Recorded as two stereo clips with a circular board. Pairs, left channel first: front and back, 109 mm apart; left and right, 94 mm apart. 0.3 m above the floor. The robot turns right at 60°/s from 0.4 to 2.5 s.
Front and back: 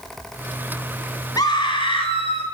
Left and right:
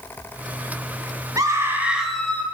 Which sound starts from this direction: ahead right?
A scream, at 1.4 s.